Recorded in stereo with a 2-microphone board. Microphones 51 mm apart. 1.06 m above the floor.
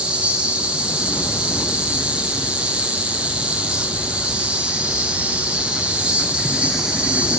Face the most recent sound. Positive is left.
turn(degrees=-20)  # may be behind; listen again after turning